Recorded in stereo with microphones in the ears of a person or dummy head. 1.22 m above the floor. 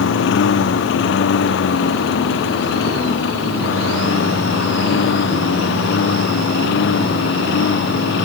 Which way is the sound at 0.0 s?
75° left (ahead or behind).